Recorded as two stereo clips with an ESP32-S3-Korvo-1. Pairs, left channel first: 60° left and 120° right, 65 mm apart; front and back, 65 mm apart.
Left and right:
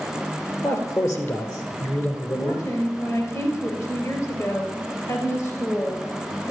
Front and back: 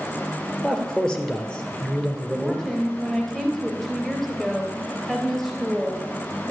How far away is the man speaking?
About 2.5 m.